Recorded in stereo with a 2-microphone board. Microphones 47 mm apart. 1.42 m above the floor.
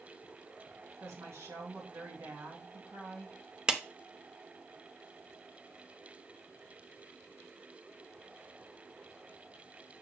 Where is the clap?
20° right (ahead or behind), 0.7 m.